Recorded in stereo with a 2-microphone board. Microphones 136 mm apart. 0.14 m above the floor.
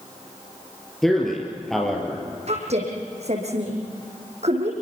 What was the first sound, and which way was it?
A man speaking, centre (ahead or behind).